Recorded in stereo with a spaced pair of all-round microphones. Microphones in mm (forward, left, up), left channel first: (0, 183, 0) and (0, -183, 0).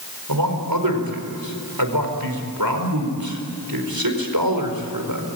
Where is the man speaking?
65° right (ahead or behind), 4.5 m.